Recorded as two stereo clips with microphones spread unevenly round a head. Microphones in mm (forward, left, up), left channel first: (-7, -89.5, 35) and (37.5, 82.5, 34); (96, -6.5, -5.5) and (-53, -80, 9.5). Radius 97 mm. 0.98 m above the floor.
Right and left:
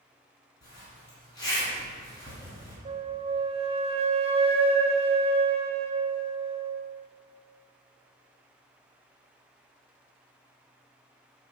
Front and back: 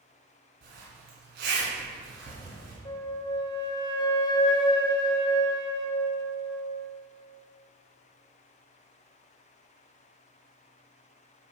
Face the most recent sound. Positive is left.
turn(degrees=55)